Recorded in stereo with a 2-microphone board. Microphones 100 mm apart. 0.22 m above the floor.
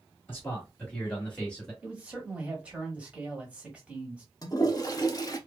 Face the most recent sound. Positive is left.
turn(degrees=35)  # may be behind; listen again after turning